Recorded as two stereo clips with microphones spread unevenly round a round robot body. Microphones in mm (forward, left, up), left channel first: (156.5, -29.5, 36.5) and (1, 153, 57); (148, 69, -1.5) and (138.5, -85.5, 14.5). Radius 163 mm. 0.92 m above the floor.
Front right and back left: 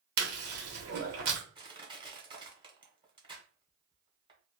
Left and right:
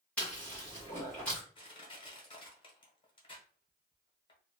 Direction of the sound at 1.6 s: 65° left.